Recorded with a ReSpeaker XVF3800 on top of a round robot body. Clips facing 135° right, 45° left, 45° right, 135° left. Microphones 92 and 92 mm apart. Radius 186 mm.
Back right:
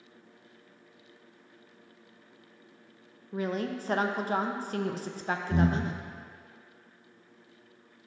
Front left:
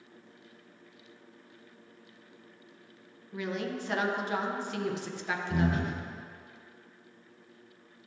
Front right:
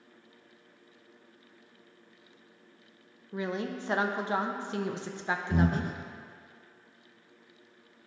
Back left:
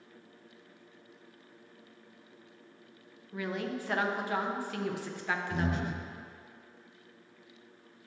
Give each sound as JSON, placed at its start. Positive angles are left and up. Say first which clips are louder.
{"t": 3.3, "sound": "a woman speaking", "louder": "back right 3 dB, front right 2 dB", "azimuth_deg": -105, "distance_m": 0.9}
{"t": 5.5, "sound": "breathing", "louder": "back right 2 dB, front right 4 dB", "azimuth_deg": -80, "distance_m": 0.7}